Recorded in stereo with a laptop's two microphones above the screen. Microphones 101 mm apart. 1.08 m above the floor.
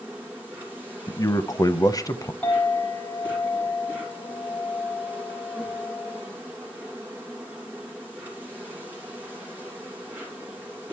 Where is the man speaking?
35° left (ahead or behind), 0.7 m.